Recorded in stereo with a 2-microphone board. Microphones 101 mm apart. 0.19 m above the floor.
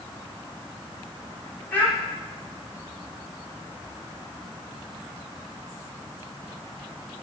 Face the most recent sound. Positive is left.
turn(degrees=20)  # may be behind; listen again after turning